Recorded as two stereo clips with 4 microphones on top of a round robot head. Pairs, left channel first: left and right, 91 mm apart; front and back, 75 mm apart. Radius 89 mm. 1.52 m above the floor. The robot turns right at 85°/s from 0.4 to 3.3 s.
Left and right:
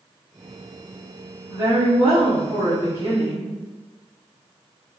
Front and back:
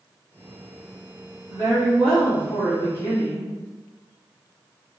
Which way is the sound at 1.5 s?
155° right.